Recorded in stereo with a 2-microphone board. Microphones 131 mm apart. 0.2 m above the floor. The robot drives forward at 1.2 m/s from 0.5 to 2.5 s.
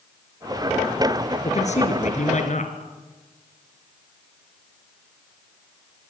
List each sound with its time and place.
1.4 s a man speaking: 60° left (ahead or behind), 3.5 m; by 2.8 s 65° left (ahead or behind), 3.5 m